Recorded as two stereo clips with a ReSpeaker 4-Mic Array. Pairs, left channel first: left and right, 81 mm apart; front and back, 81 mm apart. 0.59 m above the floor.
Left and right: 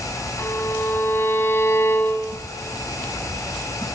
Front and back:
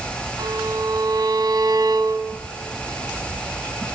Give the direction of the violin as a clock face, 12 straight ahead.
7 o'clock.